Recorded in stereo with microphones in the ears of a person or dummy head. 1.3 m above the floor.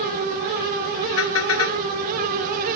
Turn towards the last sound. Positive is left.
turn(degrees=80)